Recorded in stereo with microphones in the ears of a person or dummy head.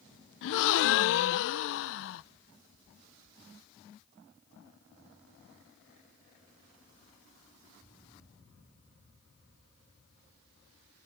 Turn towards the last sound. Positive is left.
turn(degrees=65)  # may be behind; listen again after turning